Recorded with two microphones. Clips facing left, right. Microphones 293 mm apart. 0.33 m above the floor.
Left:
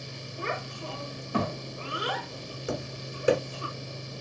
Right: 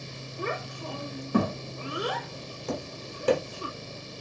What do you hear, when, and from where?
0.4 s a child speaking: 50° right (ahead or behind), 1.4 m
2.7 s tapping: 10° left (ahead or behind), 1.3 m